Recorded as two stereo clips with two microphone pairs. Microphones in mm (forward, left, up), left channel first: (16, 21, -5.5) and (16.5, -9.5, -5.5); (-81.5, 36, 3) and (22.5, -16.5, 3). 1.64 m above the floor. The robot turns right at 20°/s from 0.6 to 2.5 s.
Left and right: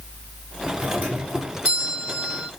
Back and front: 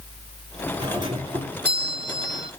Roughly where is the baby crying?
I don't hear a baby crying.